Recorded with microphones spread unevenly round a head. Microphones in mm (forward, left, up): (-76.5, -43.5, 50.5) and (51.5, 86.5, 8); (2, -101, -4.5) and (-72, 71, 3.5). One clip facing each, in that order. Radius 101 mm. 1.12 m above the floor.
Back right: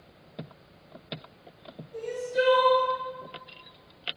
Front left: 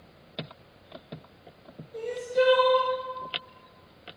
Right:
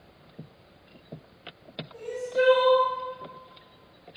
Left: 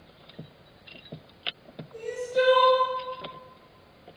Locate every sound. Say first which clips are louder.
1.9 s crying: front left 2 dB, left 1 dB; 165° left, 1.2 m